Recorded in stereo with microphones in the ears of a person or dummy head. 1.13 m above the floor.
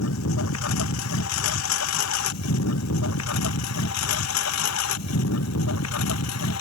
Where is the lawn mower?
80° left; by 6.6 s 85° left.